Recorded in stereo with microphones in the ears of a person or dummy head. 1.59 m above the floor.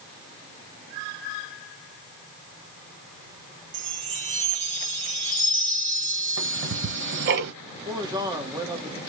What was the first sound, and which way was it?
A chime, 30° right (ahead or behind).